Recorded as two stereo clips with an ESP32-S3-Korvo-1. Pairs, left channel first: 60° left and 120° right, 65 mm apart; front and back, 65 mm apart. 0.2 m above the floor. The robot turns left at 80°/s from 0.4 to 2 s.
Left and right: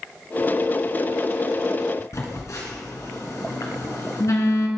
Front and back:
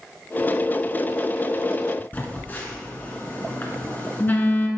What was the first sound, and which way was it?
A phone buzzing, 55° left.